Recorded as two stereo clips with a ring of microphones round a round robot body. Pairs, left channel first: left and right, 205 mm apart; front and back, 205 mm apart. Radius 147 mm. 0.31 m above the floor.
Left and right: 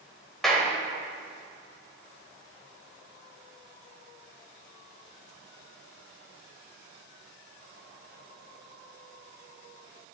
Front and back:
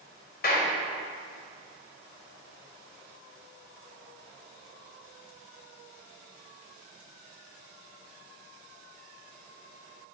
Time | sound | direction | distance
0.4 | a clap | straight ahead | 1.5 m